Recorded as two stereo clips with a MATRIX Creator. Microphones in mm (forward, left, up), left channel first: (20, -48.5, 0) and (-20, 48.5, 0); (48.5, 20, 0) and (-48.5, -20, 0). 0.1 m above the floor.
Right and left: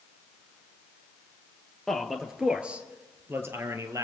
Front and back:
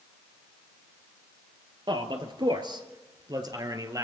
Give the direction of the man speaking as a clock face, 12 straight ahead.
5 o'clock.